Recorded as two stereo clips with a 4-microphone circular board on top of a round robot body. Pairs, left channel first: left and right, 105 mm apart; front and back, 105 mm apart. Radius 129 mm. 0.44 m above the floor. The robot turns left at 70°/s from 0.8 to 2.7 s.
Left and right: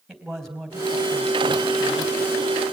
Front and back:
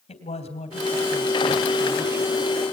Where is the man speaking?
Straight ahead, 3.5 m; by 2.3 s 105° right, 3.5 m.